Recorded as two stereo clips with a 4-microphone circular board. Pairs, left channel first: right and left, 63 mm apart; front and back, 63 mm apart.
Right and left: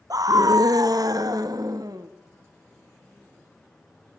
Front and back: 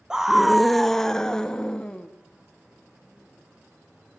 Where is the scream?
105° left, 0.8 m; by 2.1 s 75° left, 2 m.